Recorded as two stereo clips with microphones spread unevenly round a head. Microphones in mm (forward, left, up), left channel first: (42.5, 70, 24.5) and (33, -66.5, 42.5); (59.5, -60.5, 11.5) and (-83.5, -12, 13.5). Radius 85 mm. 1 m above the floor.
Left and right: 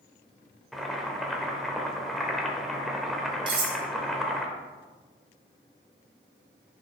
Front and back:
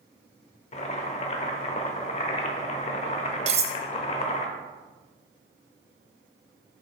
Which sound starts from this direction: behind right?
Cutlery clinking, at 3.5 s.